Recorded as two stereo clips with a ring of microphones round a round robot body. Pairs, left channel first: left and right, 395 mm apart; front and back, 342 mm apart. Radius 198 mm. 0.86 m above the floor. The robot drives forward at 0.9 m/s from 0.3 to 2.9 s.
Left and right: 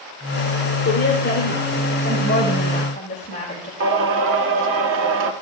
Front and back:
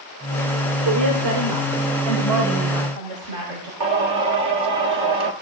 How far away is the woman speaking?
About 2.5 m.